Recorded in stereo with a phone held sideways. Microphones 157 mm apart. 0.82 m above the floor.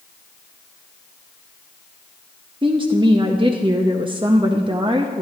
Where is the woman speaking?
30° right (ahead or behind), 0.8 m.